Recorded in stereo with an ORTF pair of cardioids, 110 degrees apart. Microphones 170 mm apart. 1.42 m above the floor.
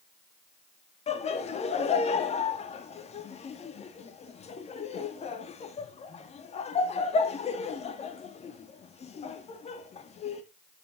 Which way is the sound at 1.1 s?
40° left.